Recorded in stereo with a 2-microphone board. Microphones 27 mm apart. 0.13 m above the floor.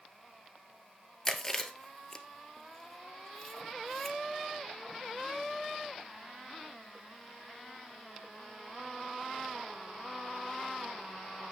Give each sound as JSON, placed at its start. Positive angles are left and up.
{"t": 1.2, "sound": "chewing", "side_deg": 15, "distance_m": 1.2}